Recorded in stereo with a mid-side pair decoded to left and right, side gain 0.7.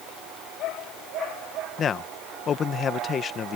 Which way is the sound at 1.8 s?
35° left.